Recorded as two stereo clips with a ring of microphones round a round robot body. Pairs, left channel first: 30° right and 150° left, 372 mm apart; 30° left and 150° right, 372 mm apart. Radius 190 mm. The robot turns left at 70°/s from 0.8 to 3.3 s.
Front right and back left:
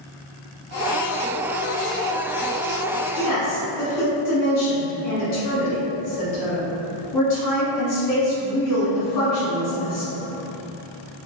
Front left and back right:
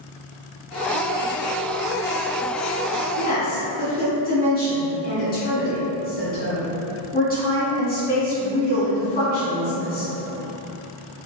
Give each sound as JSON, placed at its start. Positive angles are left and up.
{"t": 3.2, "sound": "a woman speaking", "azimuth_deg": -20, "distance_m": 1.7}